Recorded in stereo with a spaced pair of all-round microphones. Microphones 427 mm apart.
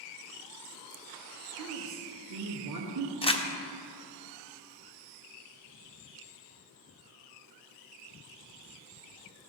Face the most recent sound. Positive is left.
turn(degrees=15)  # may be behind; listen again after turning